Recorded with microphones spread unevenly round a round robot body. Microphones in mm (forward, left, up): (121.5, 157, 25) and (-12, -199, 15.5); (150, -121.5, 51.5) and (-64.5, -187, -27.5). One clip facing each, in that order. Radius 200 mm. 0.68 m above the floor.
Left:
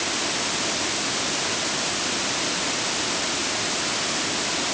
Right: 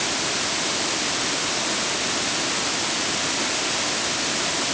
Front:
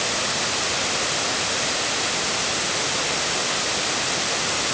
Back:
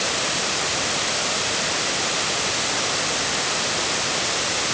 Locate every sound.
Only background noise.